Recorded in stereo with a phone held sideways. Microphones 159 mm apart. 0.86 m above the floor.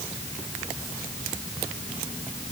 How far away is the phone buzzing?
No phone buzzing in this recording.